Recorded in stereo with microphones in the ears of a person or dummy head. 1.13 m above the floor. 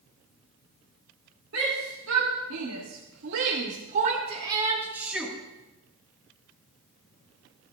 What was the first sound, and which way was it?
A shout, 75° right (ahead or behind).